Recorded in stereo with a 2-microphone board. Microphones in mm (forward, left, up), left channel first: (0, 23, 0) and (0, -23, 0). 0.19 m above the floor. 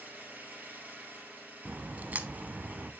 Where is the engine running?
40° right (ahead or behind), 3 m.